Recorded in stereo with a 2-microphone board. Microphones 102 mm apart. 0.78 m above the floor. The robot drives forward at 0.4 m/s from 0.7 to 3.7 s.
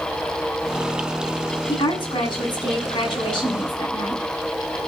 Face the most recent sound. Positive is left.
turn(degrees=45)  # may be behind; listen again after turning